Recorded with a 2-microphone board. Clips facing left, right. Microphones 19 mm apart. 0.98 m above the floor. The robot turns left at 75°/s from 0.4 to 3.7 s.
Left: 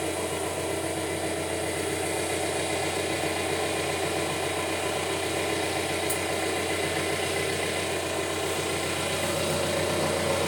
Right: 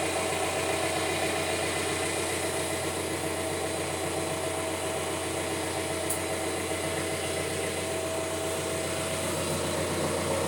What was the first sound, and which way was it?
An engine running, 30° right.